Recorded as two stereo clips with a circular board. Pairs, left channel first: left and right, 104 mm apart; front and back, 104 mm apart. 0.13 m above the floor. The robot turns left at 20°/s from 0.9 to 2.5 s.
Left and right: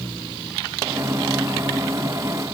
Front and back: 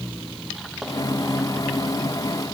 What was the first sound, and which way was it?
Only background noise.